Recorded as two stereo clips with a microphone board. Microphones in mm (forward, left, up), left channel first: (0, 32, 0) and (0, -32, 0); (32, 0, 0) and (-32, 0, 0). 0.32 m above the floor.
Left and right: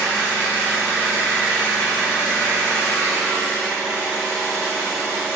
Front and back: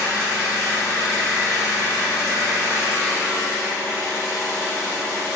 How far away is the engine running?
About 1.2 m.